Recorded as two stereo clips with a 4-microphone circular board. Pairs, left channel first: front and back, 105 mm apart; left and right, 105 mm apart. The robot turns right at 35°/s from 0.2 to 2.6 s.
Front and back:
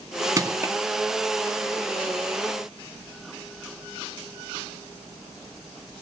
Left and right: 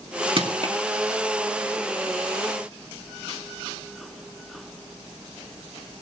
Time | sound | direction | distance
0.4 | crushing | 120° right | 2 m